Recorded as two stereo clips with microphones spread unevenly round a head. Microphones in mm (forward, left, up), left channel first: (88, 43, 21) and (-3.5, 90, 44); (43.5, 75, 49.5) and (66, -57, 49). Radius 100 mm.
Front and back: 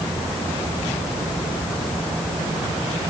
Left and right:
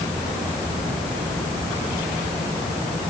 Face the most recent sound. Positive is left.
No sound to turn to.